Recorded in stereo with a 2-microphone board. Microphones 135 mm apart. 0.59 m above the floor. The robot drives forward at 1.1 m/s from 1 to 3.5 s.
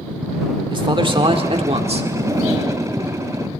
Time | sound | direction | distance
0.7 | a man speaking | 40° right (ahead or behind) | 1.9 m
2.1 | a zipper | 35° right (ahead or behind) | 6 m